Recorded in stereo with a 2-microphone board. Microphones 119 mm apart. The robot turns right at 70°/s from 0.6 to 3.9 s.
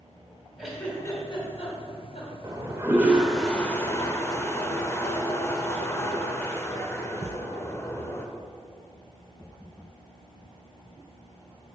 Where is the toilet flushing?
65° right, 1.1 m; by 8.3 s 40° left, 1.1 m.